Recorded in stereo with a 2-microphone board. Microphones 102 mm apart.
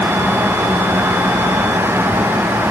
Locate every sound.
Only background noise.